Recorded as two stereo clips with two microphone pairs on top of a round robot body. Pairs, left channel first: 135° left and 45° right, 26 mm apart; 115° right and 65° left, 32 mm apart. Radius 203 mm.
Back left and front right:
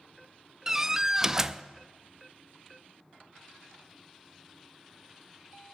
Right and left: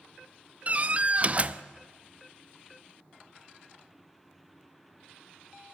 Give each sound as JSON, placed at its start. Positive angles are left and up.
{"t": 0.7, "sound": "a door slam", "azimuth_deg": 30, "distance_m": 0.7}